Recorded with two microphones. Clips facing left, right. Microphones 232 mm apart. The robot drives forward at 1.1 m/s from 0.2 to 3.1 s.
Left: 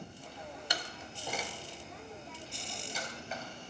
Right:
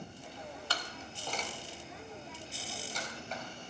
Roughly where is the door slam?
Centre.